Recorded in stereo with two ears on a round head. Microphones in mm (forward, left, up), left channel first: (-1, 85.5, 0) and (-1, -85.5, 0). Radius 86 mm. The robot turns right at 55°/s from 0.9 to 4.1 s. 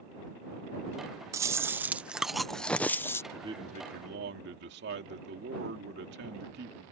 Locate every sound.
1.3 s chewing: 15° right (ahead or behind); by 3.2 s 15° left (ahead or behind)
3.3 s a man speaking: 165° right; by 6.8 s 120° right